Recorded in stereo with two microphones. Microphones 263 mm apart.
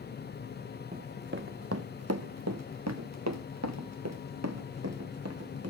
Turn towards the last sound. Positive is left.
turn(degrees=-70)  # may be behind; listen again after turning